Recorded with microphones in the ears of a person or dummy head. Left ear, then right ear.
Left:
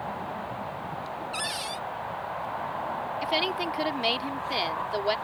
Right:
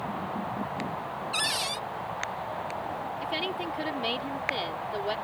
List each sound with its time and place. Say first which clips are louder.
1.3 s a cupboard door: right 4 dB; 10° right (ahead or behind)
3.2 s a woman speaking: left 5 dB; 30° left (ahead or behind)